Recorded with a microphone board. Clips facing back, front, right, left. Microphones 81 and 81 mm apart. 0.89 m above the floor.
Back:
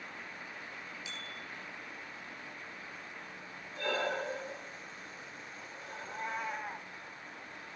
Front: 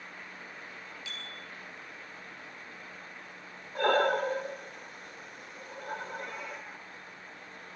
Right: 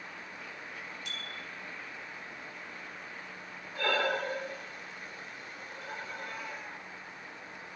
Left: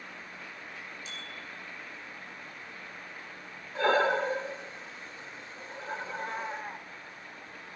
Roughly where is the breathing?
Ahead left.